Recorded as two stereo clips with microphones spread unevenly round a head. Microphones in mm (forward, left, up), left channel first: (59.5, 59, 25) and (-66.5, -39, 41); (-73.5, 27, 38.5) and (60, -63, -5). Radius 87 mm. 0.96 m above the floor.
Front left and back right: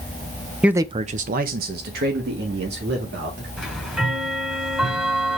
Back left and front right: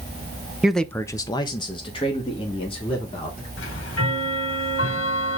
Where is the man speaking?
50° right, 0.6 m; by 3.5 s 155° right, 3 m.